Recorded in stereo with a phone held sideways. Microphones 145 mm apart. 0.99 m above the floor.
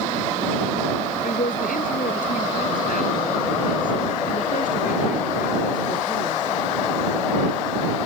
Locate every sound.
1.2 s a woman speaking: 85° left; by 6.7 s 70° left (ahead or behind)